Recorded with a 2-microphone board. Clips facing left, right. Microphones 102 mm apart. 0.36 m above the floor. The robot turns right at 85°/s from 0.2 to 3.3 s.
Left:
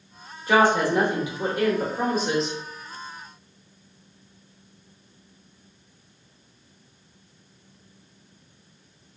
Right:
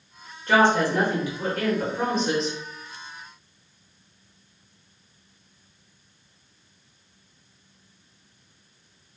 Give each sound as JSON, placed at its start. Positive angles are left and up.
{"t": 0.5, "sound": "a woman speaking", "side_deg": 5, "distance_m": 0.8}